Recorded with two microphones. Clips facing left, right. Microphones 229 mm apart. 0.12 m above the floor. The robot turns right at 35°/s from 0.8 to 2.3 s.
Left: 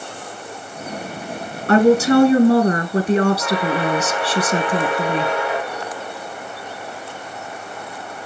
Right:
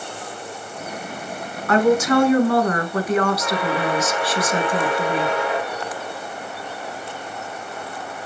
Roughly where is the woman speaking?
Left.